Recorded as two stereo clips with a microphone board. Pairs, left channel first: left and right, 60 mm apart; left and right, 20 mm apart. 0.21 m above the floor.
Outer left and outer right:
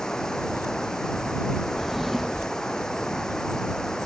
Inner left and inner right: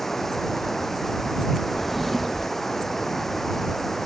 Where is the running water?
10° left (ahead or behind).